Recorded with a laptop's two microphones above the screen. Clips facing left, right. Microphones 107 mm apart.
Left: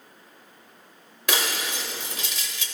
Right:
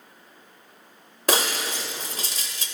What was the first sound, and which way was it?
Breaking glass, 40° right (ahead or behind).